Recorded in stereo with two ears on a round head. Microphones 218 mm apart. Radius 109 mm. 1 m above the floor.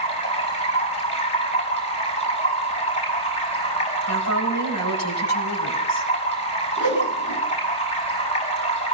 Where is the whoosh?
50° left (ahead or behind), 8.5 m.